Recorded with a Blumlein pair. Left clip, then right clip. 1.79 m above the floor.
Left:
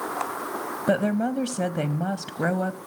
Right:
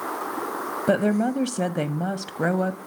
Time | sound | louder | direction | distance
0.9 | a woman speaking | right 2 dB | 5° right | 0.6 m